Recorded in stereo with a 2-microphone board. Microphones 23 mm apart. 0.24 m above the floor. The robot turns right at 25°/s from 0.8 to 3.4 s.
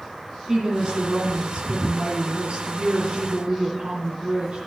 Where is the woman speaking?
135° right, 3 m; by 4.6 s 70° right, 3 m.